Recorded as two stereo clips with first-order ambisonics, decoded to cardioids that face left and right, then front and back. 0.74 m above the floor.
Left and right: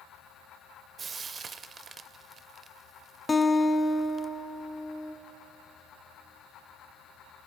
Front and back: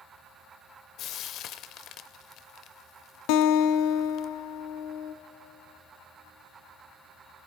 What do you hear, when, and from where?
1.0 s frying: 30° right, 0.6 m
3.3 s a guitar: 15° left, 0.7 m